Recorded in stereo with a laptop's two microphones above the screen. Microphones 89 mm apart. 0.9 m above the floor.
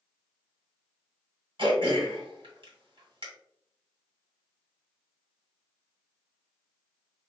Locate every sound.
1.6 s throat clearing: 65° right (ahead or behind), 1.9 m